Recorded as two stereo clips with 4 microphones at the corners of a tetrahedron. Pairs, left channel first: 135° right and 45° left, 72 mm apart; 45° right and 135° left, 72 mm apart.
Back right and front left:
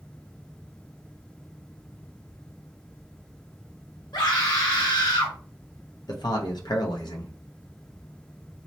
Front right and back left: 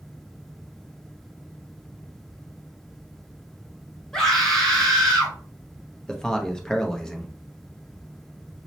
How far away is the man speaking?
About 0.7 m.